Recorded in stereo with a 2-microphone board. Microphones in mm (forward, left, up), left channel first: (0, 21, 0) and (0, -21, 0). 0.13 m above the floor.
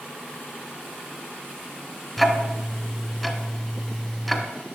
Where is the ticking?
Centre (ahead or behind), 0.9 m.